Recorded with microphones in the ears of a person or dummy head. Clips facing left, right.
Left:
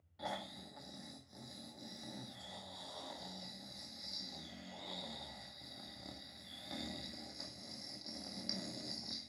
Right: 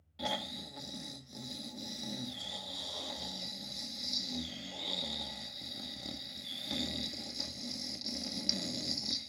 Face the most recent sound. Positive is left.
turn(degrees=-35)  # may be behind; listen again after turning